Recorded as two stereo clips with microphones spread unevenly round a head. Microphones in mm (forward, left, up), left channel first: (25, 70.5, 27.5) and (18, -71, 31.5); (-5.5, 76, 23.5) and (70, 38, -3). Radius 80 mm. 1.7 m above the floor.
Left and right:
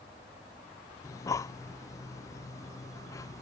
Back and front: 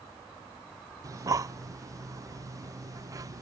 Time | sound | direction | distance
1.0 | breathing | 25° left | ?